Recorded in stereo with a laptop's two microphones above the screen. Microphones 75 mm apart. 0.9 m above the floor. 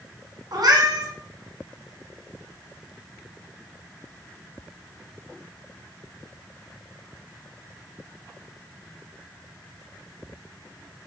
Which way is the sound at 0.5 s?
65° right (ahead or behind).